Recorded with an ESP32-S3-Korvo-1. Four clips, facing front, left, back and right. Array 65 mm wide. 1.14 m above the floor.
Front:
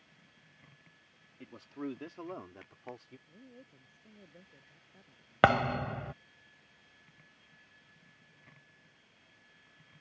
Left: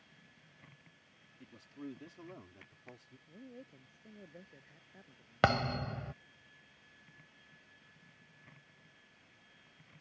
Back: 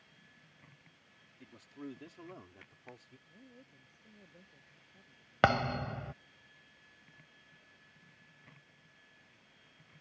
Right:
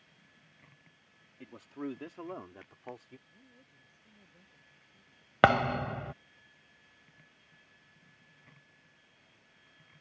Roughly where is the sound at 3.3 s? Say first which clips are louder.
Left 9 dB, front 3 dB; left.